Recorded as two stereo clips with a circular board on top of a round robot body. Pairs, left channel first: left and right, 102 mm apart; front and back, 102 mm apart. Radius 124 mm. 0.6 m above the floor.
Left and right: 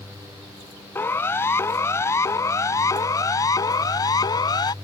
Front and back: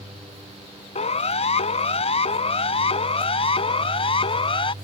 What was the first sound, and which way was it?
A siren, 20° left.